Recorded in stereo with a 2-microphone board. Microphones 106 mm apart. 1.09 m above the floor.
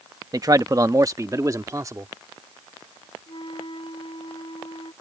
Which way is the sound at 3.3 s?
50° left (ahead or behind).